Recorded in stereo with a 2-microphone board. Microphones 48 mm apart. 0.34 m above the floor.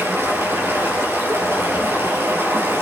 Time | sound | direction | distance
0.0 | running water | 60° right (ahead or behind) | 5 m